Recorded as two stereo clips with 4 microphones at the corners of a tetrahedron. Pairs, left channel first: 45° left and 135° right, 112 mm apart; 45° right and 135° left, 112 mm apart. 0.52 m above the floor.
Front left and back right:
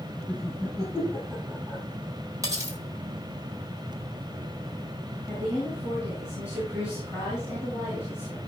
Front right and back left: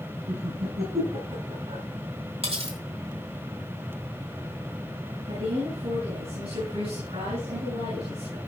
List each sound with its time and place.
0.3 s laughter: 135° left, 5.5 m; by 1.8 s 145° left, 6 m
2.4 s cutlery clinking: 165° left, 2 m
5.3 s a woman speaking: 145° left, 6.5 m